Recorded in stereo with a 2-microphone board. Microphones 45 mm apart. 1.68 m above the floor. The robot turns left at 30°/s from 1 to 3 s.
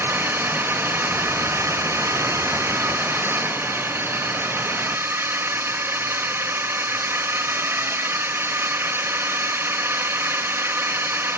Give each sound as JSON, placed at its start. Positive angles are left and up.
{"t": 0.0, "sound": "a drone", "azimuth_deg": -60}